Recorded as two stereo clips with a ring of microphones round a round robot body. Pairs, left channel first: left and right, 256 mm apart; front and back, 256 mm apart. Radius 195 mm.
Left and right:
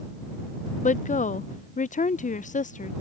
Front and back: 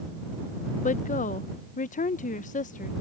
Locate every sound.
0.8 s a woman speaking: 40° left